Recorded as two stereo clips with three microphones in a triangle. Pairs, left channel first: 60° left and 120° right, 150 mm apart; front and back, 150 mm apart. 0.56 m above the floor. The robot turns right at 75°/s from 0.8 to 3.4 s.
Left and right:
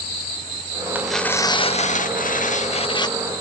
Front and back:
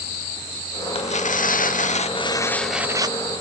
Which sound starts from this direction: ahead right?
Tearing paper, at 0.9 s.